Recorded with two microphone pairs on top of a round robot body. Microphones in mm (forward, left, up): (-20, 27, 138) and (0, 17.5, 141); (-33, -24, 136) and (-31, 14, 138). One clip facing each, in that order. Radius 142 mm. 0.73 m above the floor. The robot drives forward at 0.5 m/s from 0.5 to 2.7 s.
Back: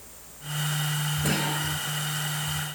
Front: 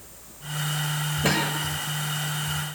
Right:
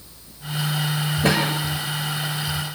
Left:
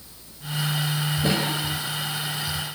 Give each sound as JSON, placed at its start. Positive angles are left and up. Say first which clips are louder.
{"t": 1.2, "sound": "a cough", "louder": "front 4 dB, right 5 dB", "azimuth_deg": -85, "distance_m": 4.0}